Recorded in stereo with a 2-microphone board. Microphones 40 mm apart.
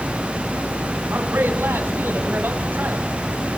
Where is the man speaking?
70° right (ahead or behind), 9.5 m; by 3.1 s 55° right (ahead or behind), 7 m.